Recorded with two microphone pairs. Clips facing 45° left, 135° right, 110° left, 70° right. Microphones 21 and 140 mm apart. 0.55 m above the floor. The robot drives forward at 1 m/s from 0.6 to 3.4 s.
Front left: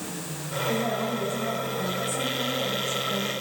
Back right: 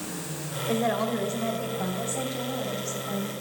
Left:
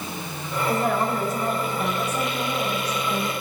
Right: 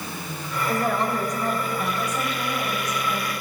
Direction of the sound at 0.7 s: 160° right.